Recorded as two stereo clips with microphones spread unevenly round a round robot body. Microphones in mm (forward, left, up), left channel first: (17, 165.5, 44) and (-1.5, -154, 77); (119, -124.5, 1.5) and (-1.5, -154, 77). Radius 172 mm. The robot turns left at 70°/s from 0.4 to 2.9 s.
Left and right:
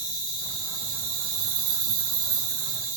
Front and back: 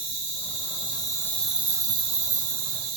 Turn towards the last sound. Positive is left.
turn(degrees=-165)